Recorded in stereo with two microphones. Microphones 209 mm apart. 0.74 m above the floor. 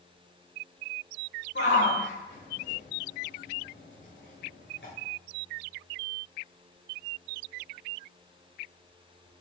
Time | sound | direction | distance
1.6 | a shout | 65° left (ahead or behind) | 9 m